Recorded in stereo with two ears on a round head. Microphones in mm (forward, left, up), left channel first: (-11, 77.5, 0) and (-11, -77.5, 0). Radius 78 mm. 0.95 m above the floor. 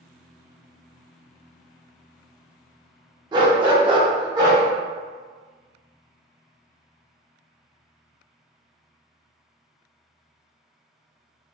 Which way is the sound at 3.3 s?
25° right (ahead or behind).